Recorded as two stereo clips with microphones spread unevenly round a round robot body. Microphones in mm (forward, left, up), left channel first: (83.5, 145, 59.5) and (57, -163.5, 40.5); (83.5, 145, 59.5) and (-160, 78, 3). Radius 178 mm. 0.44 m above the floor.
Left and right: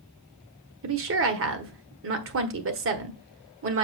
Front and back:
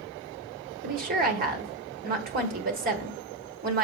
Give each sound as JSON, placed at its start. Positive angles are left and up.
{"t": 0.8, "sound": "a woman speaking", "azimuth_deg": -130, "distance_m": 1.2}